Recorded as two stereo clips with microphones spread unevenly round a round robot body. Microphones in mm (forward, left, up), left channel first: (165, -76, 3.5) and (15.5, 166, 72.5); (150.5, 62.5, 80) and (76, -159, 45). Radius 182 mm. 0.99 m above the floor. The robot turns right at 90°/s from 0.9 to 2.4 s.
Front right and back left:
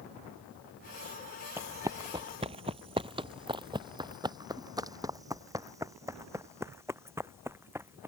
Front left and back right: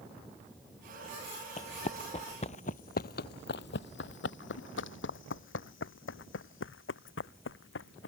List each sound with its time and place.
1.6 s running footsteps: 70° left; by 8.1 s 45° left